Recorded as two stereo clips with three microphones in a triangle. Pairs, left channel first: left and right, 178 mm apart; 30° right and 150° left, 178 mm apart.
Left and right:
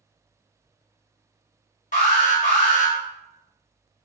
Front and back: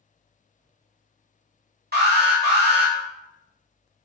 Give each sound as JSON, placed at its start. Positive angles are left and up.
{"t": 1.9, "sound": "an alarm", "azimuth_deg": 130, "distance_m": 1.2}